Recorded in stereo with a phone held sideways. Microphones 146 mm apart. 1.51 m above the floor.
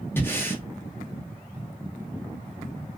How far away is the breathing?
About 0.8 m.